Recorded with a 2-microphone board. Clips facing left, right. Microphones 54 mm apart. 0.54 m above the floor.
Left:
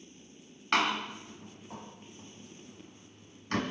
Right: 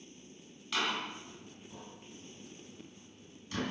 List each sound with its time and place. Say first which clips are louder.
0.7 s a door slam: left 6 dB; 60° left (ahead or behind), 3 m